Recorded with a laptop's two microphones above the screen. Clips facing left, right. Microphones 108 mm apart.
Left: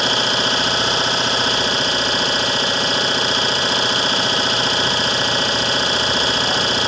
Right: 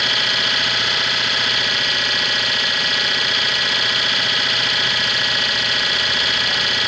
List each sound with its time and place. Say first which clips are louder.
0.0 s an engine running: left 5 dB; 30° left (ahead or behind), 0.8 m